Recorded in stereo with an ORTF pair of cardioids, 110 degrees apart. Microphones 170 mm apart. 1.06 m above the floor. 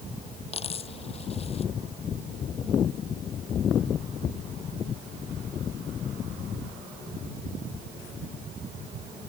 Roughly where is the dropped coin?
Ahead left.